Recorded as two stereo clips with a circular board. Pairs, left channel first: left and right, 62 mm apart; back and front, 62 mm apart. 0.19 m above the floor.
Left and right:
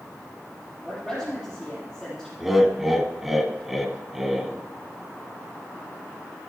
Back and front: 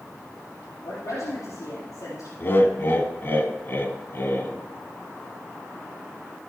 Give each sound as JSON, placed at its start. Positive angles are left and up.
{"t": 0.8, "sound": "a woman speaking", "azimuth_deg": 180, "distance_m": 4.5}
{"t": 2.4, "sound": "laughter", "azimuth_deg": -175, "distance_m": 1.3}